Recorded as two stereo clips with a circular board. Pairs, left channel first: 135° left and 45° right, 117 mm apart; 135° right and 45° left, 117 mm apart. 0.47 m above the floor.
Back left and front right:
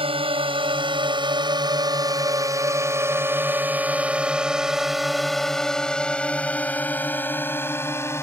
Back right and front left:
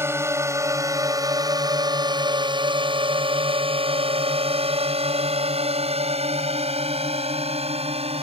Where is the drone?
20° right; by 8.2 s 70° left.